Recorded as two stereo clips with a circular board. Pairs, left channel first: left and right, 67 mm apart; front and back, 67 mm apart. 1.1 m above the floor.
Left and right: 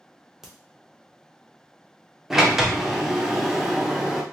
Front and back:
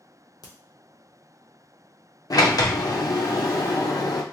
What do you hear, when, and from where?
0.4 s a crack: 10° right, 0.7 m
2.3 s a sliding door: 5° right, 0.6 m